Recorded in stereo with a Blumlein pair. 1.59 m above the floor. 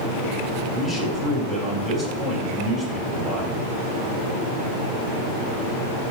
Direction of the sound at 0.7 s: 10° right.